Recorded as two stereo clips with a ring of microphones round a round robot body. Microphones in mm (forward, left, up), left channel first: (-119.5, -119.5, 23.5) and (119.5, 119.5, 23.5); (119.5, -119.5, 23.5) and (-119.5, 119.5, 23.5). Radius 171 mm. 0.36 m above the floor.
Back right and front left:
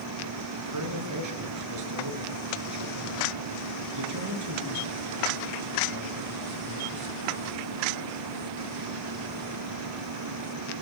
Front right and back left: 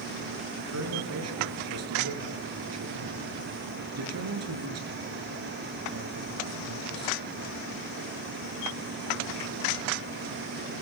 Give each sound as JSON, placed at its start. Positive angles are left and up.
{"t": 0.6, "sound": "a man speaking", "azimuth_deg": 85, "distance_m": 6.5}